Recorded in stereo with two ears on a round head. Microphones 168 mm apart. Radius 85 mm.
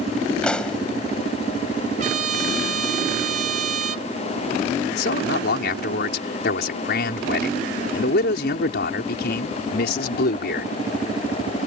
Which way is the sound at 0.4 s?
5° left (ahead or behind).